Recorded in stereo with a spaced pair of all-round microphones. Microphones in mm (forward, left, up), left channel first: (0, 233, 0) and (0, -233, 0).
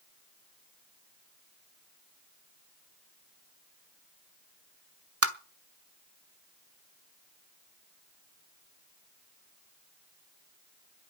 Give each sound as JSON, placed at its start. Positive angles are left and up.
{"t": 5.2, "sound": "tapping", "side_deg": -30, "distance_m": 1.2}